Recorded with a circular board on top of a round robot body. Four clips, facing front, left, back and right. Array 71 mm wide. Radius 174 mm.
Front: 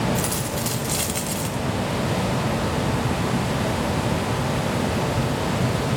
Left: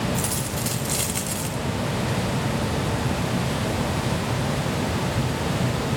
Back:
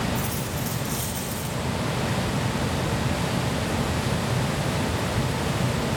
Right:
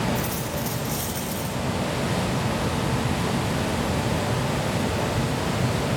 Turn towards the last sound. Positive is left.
turn(degrees=45)